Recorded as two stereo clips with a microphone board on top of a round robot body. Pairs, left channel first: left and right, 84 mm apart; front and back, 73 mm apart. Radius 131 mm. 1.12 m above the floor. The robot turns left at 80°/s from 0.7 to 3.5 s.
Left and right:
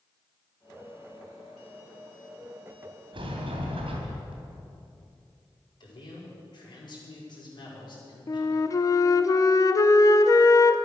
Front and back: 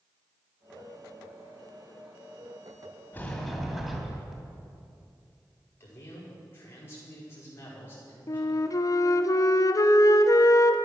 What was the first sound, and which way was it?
A sliding door, 65° right.